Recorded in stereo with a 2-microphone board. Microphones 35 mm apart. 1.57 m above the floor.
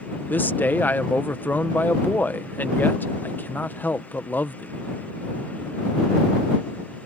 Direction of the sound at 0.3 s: 70° left (ahead or behind).